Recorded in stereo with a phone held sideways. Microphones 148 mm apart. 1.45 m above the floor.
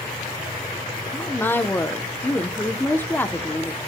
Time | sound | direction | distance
1.1 | a woman speaking | 10° left (ahead or behind) | 0.8 m